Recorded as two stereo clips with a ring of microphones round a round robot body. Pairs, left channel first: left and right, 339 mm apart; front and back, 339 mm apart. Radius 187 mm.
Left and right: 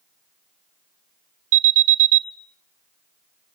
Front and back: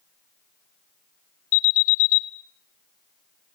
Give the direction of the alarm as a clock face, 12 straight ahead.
2 o'clock.